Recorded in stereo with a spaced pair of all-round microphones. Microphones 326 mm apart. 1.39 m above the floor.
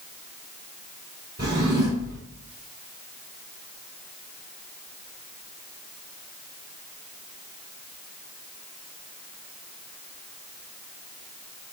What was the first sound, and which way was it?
A drawer, 45° right (ahead or behind).